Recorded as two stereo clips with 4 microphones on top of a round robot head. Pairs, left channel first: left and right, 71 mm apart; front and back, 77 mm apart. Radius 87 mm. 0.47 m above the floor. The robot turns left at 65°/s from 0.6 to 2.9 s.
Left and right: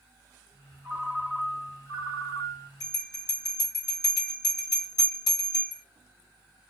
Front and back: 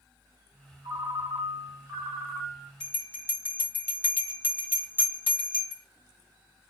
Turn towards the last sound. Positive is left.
turn(degrees=70)